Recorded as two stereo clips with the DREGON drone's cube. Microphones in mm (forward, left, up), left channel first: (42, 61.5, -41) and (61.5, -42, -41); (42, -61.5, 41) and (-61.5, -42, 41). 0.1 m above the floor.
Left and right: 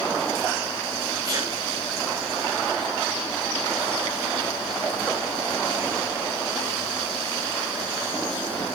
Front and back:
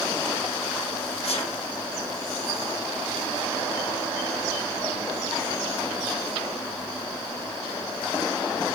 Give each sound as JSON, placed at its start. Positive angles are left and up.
{"t": 1.2, "sound": "a sneeze", "azimuth_deg": -25, "distance_m": 7.0}